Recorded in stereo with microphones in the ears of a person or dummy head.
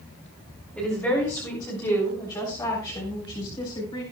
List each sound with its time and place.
0.8 s a woman speaking: 10° left (ahead or behind), 3 m; by 4.0 s 35° left (ahead or behind), 4.5 m